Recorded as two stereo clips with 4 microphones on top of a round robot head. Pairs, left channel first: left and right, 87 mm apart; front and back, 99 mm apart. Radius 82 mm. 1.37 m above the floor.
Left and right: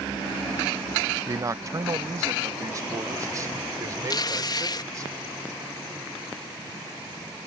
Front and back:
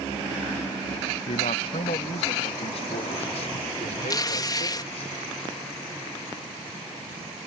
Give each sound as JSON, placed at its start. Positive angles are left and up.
{"t": 1.3, "sound": "a man speaking", "azimuth_deg": -35}
{"t": 4.1, "sound": "tearing paper", "azimuth_deg": 50}